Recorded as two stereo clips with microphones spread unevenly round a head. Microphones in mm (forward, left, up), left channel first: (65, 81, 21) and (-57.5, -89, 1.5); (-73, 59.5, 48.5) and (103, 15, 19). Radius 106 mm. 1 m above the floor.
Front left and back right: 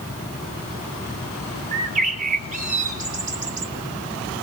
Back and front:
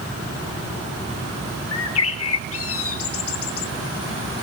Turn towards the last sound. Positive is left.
turn(degrees=180)